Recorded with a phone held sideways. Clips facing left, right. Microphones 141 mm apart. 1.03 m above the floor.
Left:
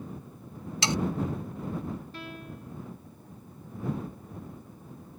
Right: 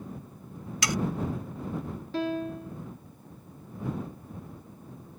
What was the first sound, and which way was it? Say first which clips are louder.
Sawing: left 1 dB; 25° left (ahead or behind).